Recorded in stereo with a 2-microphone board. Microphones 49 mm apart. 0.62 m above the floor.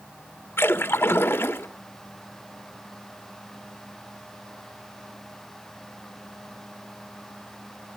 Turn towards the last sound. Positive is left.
turn(degrees=50)  # may be behind; listen again after turning